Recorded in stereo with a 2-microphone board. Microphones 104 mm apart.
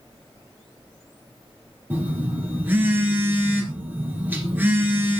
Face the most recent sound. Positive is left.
turn(degrees=-15)  # may be behind; listen again after turning